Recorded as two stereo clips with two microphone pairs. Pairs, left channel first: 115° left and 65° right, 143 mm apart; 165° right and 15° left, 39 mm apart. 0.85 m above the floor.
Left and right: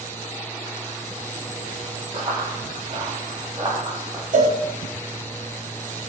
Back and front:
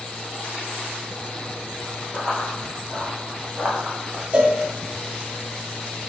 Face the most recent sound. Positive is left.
turn(degrees=-45)